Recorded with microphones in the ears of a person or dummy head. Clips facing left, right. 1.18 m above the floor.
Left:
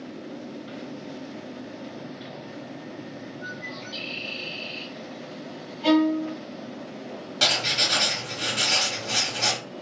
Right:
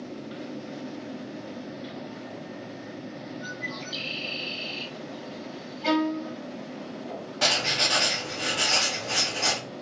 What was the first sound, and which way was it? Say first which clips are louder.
A bird: right 1 dB; 10° right (ahead or behind).